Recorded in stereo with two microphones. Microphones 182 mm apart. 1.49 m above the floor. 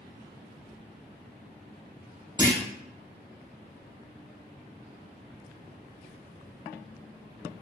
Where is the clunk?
20° right (ahead or behind), 0.7 m.